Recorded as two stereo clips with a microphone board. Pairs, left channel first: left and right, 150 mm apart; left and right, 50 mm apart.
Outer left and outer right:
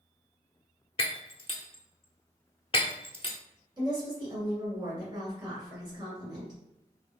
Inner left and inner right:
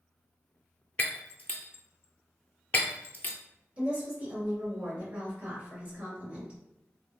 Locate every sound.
1.0 s breaking glass: 40° left (ahead or behind), 0.5 m
3.8 s a woman speaking: 30° right (ahead or behind), 1.8 m